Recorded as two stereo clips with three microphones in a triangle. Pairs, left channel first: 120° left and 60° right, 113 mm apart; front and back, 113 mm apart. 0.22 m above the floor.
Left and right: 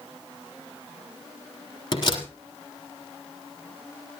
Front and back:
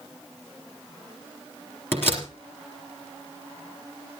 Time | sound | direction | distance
1.9 | a door slam | 70° left | 3.5 m